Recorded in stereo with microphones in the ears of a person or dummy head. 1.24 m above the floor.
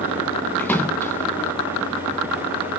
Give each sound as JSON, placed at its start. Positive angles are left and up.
{"t": 0.6, "sound": "a splash", "side_deg": 10, "distance_m": 0.5}